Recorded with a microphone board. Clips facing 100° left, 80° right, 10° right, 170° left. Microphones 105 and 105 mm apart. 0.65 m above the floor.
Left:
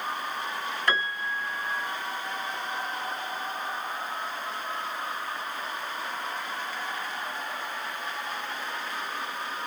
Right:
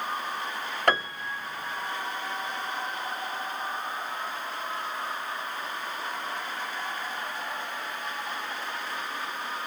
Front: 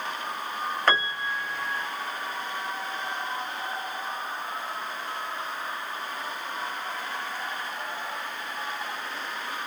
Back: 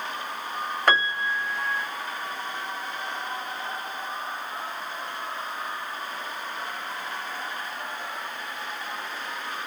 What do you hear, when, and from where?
0.9 s a piano: 110° right, 1.2 m